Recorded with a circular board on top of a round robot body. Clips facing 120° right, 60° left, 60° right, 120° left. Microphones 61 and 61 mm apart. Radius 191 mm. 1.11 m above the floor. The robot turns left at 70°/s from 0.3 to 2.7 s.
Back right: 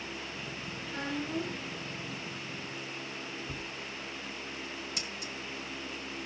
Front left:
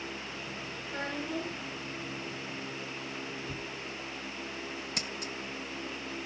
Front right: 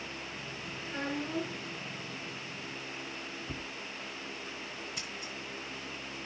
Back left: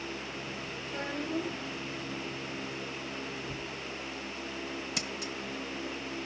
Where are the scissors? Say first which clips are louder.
Front left 2 dB, back left 5 dB; 100° left, 0.7 m.